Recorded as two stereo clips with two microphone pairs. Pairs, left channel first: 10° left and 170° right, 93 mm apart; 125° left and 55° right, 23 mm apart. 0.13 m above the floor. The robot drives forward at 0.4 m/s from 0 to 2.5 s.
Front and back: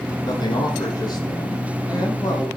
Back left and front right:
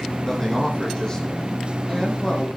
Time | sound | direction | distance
0.2 | a man speaking | 50° left | 5.5 m